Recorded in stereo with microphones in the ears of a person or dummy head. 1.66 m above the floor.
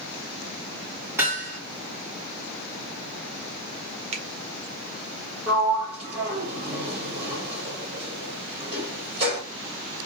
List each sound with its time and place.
1.2 s hammering: 15° right (ahead or behind), 2 m
4.1 s a finger snap: 35° right (ahead or behind), 0.7 m
5.5 s a sliding door: 30° right (ahead or behind), 1.6 m